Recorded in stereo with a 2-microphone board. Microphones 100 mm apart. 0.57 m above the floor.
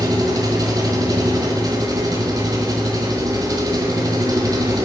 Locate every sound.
0.0 s an engine running: 40° right (ahead or behind), 1.2 m